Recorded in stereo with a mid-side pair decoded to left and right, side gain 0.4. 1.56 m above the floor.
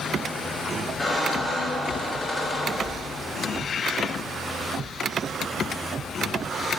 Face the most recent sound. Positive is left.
turn(degrees=25)